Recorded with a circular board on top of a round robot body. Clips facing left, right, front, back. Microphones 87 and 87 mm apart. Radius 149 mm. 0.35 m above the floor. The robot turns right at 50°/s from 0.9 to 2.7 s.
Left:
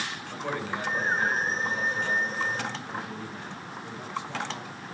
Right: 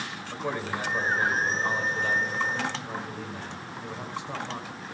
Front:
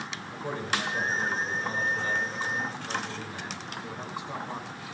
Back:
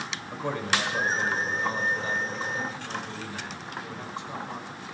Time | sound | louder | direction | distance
0.3 | a man speaking | right 2 dB, back 3 dB | 170° right | 5.5 m